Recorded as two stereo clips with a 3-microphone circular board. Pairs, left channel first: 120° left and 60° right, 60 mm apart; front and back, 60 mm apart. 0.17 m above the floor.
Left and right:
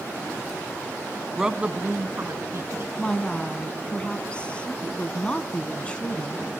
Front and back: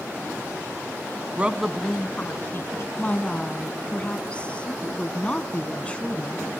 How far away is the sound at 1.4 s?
About 1.1 m.